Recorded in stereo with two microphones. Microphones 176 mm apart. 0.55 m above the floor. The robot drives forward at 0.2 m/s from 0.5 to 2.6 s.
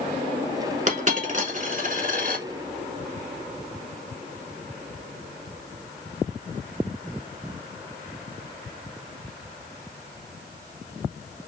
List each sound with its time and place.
0.9 s a dropped coin: 45° right (ahead or behind), 1.0 m; by 2.5 s 55° right (ahead or behind), 0.8 m